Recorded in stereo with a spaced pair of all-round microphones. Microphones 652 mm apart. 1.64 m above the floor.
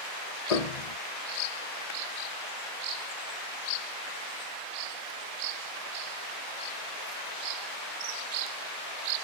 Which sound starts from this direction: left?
A piano, at 0.5 s.